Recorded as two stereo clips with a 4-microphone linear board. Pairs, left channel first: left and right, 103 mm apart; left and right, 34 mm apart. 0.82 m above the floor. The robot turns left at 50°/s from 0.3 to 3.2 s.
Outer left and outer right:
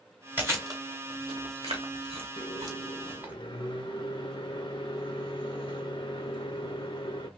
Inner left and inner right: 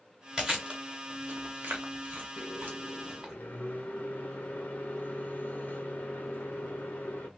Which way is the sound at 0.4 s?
20° right (ahead or behind).